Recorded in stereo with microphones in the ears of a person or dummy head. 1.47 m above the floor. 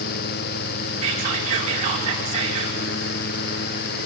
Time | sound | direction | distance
1.0 | whispering | 45° right (ahead or behind) | 5 m